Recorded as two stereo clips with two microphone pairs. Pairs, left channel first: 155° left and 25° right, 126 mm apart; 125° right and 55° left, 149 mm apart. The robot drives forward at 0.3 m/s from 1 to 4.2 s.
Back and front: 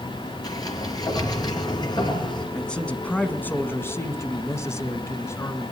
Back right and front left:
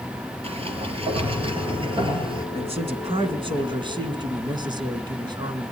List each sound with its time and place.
0.4 s a sliding door: 100° left, 3.5 m; by 2.5 s 105° left, 3.5 m
2.5 s a man speaking: 75° left, 1.6 m; by 5.7 s 95° left, 1.6 m